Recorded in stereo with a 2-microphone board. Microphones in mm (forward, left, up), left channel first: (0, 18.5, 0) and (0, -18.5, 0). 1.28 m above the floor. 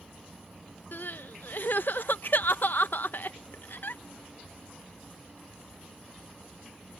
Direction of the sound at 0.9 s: 60° left (ahead or behind).